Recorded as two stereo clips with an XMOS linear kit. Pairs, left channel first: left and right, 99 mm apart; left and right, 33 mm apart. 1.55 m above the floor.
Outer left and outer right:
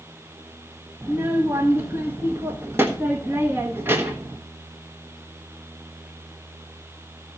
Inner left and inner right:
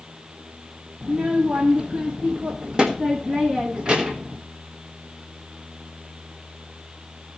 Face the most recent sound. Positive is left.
turn(degrees=-25)  # may be behind; listen again after turning